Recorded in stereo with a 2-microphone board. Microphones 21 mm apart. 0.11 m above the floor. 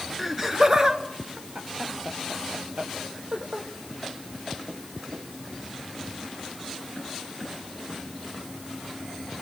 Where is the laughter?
5° right (ahead or behind), 1.3 m; by 3.7 s 70° right (ahead or behind), 3.5 m.